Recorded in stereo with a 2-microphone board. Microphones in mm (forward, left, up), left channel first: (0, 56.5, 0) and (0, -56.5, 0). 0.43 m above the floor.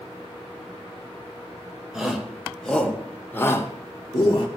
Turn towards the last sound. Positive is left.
turn(degrees=35)  # may be behind; listen again after turning